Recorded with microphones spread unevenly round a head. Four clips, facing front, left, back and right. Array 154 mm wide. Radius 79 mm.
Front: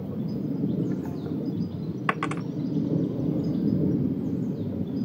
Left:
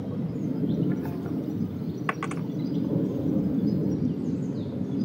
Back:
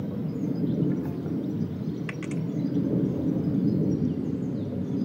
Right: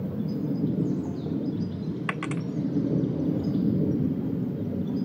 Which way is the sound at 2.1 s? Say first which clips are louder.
Left 2 dB, front 4 dB; 15° left.